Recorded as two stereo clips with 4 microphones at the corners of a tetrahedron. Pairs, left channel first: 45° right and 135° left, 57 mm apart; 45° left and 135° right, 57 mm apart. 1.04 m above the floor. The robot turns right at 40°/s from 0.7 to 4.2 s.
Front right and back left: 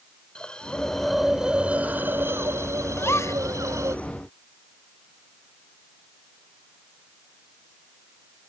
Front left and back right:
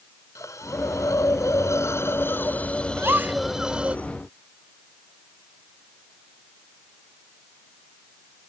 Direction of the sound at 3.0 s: 90° right.